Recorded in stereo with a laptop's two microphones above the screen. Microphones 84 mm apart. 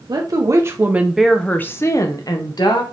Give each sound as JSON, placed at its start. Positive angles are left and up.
{"t": 0.1, "sound": "a woman speaking", "side_deg": -50, "distance_m": 0.8}